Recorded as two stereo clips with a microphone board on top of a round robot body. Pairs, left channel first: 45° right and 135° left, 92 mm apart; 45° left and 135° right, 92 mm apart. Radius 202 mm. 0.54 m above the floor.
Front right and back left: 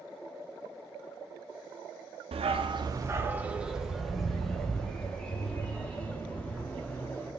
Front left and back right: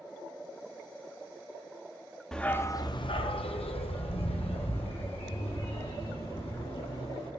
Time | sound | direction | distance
2.3 | a dog barking | 130° left | 0.7 m